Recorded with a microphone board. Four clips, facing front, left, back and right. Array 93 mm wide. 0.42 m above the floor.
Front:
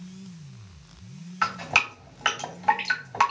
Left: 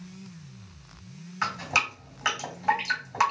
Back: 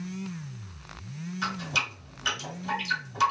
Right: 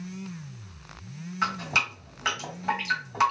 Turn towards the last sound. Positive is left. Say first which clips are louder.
# even, front 7 dB
turn(degrees=10)